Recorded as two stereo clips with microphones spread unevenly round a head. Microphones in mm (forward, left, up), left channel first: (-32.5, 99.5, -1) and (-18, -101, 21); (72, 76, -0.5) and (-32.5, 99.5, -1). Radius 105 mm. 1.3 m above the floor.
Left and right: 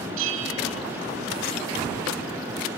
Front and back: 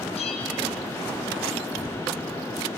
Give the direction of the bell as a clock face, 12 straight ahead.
2 o'clock.